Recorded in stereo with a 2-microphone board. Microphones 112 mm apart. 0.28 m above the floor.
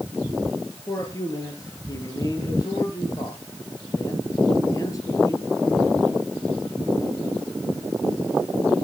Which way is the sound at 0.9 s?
30° left (ahead or behind).